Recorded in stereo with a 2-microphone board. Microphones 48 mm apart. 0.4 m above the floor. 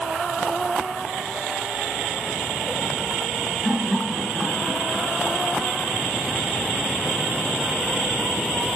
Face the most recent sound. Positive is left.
turn(degrees=5)  # may be behind; listen again after turning